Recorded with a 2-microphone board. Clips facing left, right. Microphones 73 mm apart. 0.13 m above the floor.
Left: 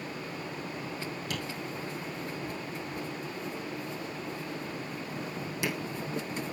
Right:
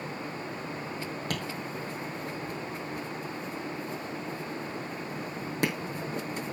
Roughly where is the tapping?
Right.